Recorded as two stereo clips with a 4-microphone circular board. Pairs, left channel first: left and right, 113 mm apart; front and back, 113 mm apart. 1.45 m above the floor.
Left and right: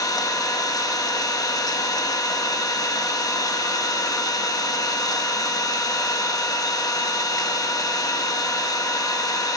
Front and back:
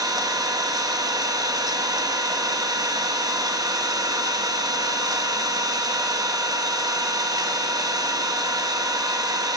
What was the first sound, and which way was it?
An engine running, 135° left.